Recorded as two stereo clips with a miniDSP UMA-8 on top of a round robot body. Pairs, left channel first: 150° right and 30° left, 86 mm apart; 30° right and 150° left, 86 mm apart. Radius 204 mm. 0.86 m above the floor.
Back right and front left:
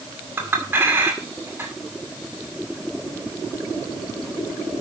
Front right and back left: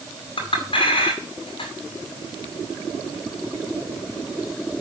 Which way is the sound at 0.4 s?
35° right.